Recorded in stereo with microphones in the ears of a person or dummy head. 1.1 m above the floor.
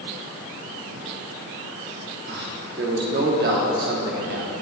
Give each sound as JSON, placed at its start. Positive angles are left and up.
{"t": 2.3, "sound": "a man speaking", "side_deg": -50, "distance_m": 1.1}